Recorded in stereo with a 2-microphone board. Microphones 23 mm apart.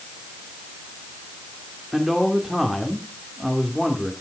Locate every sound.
1.9 s a man speaking: 10° right (ahead or behind), 1.8 m